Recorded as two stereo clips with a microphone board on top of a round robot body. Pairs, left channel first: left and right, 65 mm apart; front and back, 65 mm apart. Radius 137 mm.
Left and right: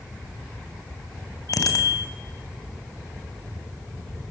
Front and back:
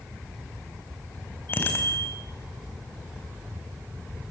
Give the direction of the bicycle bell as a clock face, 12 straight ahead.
10 o'clock.